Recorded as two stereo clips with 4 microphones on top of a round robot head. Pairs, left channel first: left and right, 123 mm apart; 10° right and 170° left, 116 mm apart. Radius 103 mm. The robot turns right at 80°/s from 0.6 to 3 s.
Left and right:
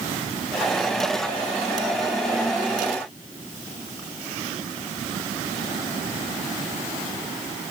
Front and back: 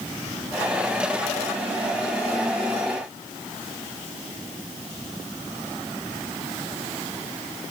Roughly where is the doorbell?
I don't hear a doorbell.